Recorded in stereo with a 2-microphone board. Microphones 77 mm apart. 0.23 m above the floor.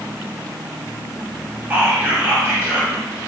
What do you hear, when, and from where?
1.7 s whispering: 25° right (ahead or behind), 1.2 m